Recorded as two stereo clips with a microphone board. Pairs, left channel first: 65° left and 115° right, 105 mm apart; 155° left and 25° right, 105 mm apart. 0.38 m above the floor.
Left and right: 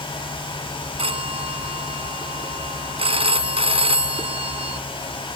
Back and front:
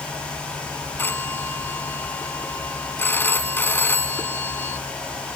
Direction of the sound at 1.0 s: 135° right.